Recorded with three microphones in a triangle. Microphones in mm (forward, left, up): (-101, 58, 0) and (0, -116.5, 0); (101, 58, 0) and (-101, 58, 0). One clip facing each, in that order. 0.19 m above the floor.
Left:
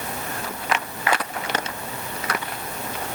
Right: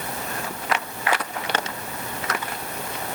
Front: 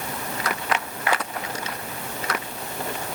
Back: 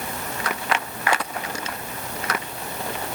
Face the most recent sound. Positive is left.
No sound to turn to.